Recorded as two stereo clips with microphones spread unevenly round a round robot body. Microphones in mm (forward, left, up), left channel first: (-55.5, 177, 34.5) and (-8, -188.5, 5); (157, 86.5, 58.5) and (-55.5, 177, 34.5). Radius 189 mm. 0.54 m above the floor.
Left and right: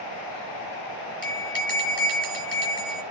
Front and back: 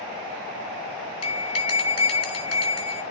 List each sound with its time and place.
1.2 s a bell: 10° right, 8 m